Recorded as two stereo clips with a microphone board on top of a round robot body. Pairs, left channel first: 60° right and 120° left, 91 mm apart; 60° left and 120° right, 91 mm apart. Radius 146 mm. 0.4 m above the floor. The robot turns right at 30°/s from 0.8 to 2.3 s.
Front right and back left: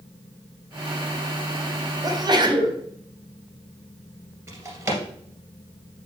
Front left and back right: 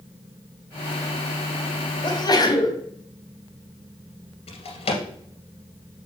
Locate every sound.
2.0 s a sneeze: 85° left, 2 m; by 2.8 s 95° left, 2 m
4.5 s a drawer: 55° left, 2 m